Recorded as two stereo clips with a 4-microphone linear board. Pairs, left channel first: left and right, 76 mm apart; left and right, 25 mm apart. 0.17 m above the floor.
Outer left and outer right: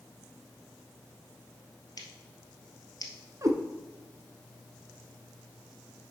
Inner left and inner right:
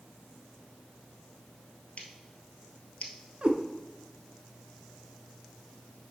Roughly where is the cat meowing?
Right.